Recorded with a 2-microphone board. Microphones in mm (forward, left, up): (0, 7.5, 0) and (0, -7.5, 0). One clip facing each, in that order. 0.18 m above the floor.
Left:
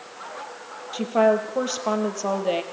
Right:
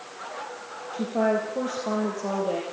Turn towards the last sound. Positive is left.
turn(degrees=50)  # may be behind; listen again after turning